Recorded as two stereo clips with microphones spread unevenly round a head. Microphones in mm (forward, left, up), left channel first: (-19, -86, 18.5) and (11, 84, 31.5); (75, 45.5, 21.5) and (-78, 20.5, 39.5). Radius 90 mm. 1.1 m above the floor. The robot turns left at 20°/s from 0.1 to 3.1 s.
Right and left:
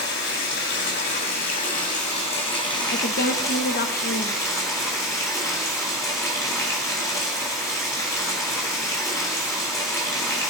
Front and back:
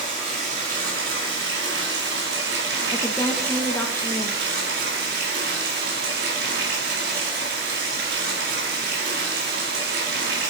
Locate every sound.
0.0 s running water: 115° right, 3.5 m; by 10.5 s 175° right, 3.5 m
2.9 s a woman speaking: 60° right, 0.9 m; by 4.4 s 65° right, 0.9 m